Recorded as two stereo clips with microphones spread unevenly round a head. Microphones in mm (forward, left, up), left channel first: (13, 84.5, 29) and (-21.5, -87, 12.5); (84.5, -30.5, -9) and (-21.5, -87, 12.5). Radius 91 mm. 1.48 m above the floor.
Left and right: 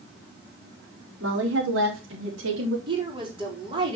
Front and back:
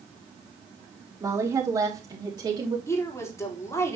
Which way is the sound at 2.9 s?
35° right.